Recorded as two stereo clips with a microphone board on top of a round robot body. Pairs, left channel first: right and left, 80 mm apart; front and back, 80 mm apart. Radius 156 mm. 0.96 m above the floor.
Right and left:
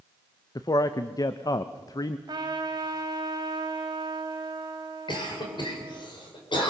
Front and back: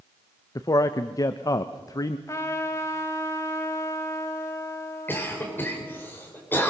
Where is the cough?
65° right, 5 m.